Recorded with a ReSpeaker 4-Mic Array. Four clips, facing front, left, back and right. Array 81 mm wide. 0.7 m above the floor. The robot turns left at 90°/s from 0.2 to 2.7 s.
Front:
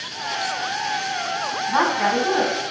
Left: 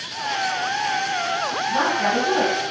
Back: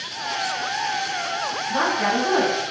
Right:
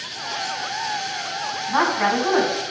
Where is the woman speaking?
40° right, 4.5 m; by 2.7 s 135° right, 4.5 m.